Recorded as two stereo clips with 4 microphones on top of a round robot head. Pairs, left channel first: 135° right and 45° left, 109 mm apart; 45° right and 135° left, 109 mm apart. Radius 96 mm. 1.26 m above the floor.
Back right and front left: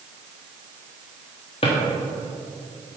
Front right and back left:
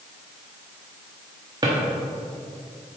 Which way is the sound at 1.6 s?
170° right.